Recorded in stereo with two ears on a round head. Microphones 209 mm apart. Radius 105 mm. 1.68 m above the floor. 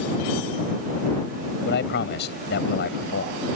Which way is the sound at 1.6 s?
50° left (ahead or behind).